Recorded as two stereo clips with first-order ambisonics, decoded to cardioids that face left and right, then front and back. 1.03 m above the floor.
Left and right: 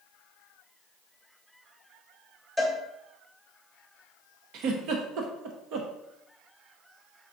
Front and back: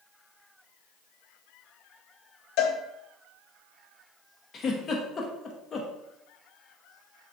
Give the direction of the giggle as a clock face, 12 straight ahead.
2 o'clock.